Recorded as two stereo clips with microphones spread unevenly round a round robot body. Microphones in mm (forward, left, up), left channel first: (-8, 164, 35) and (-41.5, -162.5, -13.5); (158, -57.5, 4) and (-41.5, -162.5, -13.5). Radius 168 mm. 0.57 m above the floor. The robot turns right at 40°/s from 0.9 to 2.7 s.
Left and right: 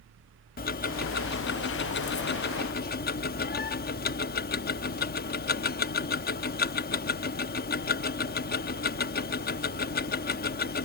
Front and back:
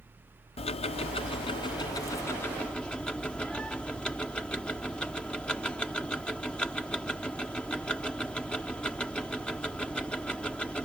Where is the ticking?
45° left; by 10.8 s 120° left.